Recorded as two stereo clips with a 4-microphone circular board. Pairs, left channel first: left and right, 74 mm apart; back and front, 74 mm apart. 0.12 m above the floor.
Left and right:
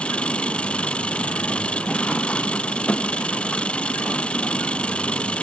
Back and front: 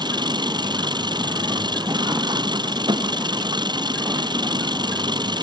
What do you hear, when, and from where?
0.0 s an engine running: 15° left